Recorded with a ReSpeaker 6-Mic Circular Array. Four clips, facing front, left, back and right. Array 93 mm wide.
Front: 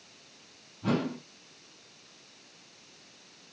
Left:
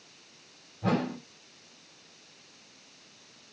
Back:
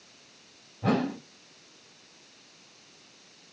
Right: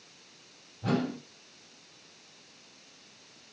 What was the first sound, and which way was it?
A whoosh, 160° left.